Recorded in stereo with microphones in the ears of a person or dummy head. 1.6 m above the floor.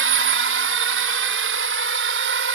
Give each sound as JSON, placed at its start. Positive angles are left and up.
{"t": 0.0, "sound": "a drone", "side_deg": -70}